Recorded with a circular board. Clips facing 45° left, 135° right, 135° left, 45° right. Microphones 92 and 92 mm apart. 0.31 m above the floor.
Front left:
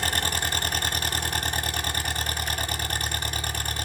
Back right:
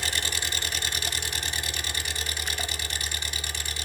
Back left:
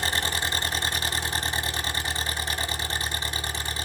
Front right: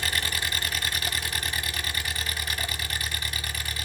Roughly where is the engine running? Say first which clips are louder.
Front left 5 dB, back left 3 dB; left.